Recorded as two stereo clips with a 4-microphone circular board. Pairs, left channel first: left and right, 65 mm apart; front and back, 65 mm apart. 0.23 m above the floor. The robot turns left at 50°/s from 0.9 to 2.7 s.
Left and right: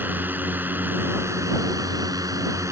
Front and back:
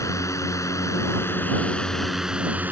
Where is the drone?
30° right; by 2.7 s 120° right.